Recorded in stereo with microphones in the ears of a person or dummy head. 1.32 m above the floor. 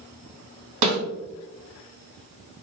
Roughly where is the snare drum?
Right.